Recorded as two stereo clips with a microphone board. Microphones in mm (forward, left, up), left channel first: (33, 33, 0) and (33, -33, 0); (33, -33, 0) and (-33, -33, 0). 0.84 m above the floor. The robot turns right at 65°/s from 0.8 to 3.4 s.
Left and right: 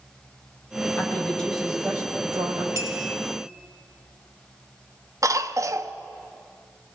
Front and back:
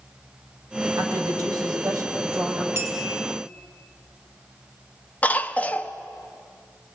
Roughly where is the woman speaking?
Behind left.